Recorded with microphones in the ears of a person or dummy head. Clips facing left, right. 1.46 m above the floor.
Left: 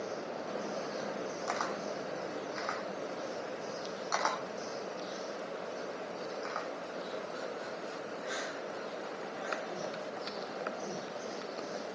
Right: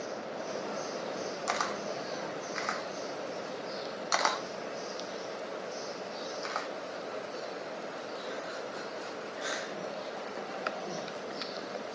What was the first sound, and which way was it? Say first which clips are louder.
A camera shutter: right 2 dB; 40° right (ahead or behind).